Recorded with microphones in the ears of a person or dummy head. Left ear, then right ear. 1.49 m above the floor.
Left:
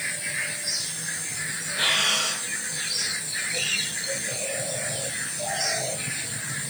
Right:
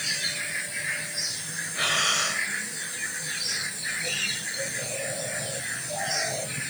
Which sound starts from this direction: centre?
Breathing, at 1.7 s.